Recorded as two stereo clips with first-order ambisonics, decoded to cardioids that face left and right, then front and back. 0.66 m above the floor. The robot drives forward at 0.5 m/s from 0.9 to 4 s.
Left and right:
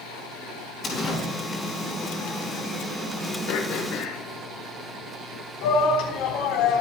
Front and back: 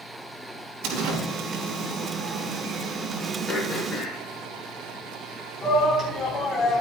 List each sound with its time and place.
0.8 s a door slam: 160° left, 5 m
3.5 s throat clearing: 75° left, 8 m; by 6.0 s 80° left, 8 m
5.6 s a shout: 80° left, 4.5 m